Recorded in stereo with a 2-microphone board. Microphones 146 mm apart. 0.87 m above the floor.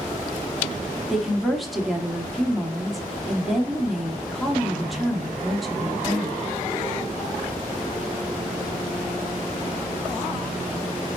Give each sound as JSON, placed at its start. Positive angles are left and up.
{"t": 1.1, "sound": "a woman speaking", "side_deg": 0, "distance_m": 1.8}